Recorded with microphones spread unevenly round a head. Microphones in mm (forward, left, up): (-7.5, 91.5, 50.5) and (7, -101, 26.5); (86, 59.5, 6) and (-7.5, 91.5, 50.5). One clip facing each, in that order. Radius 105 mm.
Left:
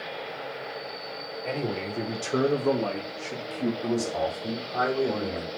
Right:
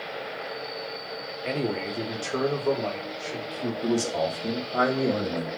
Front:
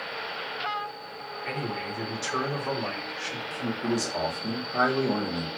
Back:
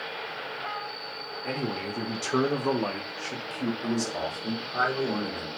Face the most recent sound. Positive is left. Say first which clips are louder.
# right 2 dB, front 1 dB
turn(degrees=-65)